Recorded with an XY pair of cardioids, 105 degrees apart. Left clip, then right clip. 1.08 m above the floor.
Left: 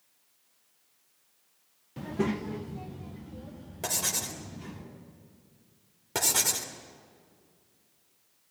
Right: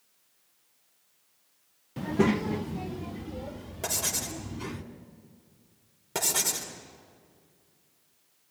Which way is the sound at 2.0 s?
25° right.